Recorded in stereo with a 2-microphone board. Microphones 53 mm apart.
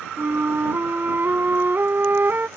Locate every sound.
0.2 s a flute: 45° right (ahead or behind)